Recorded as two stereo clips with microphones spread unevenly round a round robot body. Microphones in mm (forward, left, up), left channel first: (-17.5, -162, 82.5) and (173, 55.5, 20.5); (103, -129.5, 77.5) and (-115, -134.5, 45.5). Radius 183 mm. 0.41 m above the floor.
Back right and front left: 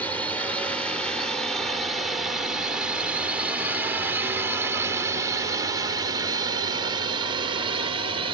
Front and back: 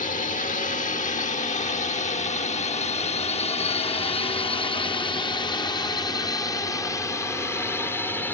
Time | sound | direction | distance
0.0 | a drone | 35° right | ?